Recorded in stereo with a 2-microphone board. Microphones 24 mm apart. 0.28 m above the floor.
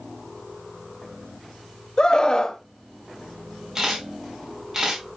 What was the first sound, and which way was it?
A scream, 35° left (ahead or behind).